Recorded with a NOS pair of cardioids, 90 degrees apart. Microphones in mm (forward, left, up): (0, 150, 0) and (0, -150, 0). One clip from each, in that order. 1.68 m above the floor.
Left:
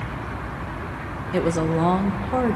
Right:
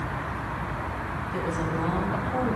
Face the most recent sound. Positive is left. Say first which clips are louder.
# left 8 dB
turn(degrees=65)